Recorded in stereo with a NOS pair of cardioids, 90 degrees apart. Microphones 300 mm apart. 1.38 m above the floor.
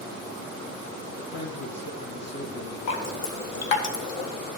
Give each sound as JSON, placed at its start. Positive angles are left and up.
{"t": 1.2, "sound": "a man speaking", "azimuth_deg": 45, "distance_m": 1.1}
{"t": 2.9, "sound": "dripping", "azimuth_deg": 65, "distance_m": 1.4}